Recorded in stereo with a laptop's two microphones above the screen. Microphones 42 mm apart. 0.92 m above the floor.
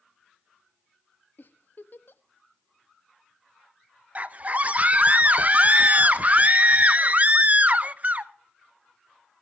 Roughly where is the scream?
Right.